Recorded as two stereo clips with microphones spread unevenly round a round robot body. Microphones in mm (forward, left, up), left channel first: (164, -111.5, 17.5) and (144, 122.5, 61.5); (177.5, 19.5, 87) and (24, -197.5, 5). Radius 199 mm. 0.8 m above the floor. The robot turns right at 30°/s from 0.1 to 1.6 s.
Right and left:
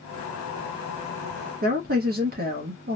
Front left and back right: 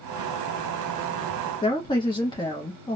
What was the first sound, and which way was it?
A woman speaking, 145° left.